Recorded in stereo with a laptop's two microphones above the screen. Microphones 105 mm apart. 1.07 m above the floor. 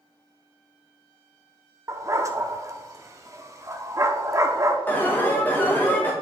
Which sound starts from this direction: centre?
An alarm, at 4.9 s.